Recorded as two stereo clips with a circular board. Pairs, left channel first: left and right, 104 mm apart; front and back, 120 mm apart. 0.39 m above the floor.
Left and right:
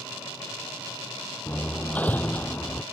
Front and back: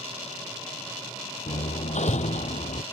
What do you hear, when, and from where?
1.5 s hammering: 15° left